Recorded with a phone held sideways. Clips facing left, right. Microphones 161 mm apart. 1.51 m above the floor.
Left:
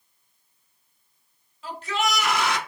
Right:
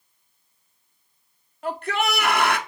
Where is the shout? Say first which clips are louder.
Right 2 dB; 55° right (ahead or behind), 0.7 m.